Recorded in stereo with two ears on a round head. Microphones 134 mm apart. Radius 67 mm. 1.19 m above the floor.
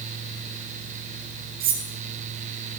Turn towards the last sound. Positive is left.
turn(degrees=-65)  # may be behind; listen again after turning